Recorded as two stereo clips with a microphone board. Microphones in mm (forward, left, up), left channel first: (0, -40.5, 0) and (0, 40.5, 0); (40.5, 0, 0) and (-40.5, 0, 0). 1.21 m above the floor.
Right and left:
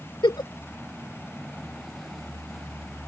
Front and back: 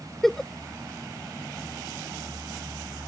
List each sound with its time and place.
0.2 s a giggle: 85° right